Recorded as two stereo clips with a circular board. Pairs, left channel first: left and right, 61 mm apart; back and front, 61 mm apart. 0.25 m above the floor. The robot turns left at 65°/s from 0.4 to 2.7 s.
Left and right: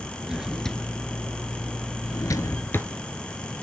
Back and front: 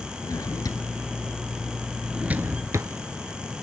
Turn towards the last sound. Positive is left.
turn(degrees=40)